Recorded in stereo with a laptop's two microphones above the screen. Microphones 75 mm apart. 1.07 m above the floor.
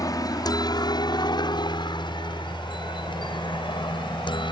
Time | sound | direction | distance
0.0 | a helicopter | 50° left (ahead or behind) | ?